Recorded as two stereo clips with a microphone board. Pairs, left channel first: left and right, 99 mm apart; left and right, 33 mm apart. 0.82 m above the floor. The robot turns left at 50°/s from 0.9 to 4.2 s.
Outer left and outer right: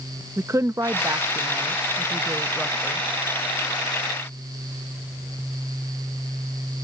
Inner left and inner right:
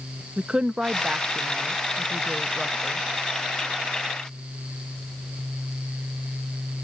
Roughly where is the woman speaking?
Right.